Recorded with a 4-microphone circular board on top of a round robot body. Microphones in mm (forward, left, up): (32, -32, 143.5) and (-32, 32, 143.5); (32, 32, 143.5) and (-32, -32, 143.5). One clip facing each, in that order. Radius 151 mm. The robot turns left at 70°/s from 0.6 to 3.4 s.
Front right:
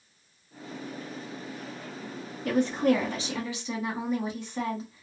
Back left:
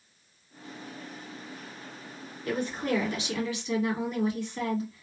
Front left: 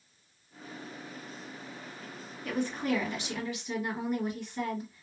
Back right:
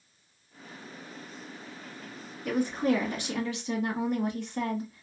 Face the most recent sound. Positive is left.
turn(degrees=-115)